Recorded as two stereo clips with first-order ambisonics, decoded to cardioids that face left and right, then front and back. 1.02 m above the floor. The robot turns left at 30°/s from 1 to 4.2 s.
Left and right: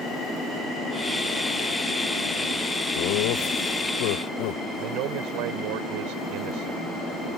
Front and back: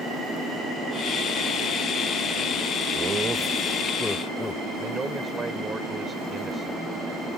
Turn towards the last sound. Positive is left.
turn(degrees=-105)